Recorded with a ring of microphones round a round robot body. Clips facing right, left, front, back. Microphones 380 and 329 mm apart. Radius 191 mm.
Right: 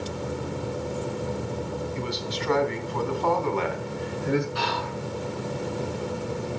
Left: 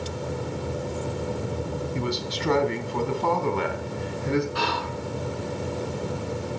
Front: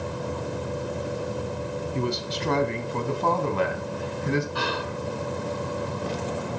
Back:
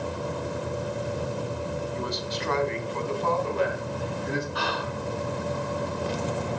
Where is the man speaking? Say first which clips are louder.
Left 2 dB, front 4 dB; 55° left, 3 m; by 4.5 s 5° left, 3 m.